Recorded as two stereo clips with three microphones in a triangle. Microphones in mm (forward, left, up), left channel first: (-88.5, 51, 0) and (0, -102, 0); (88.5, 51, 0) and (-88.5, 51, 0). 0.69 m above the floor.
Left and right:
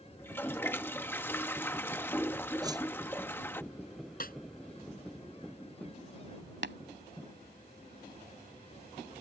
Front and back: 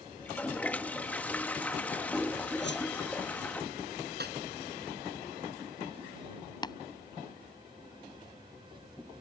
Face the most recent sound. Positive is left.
turn(degrees=-65)